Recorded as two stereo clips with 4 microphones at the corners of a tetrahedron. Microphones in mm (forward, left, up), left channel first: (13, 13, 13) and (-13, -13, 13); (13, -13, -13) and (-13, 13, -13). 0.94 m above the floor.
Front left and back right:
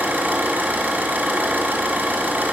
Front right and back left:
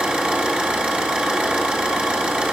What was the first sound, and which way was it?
An engine running, 165° right.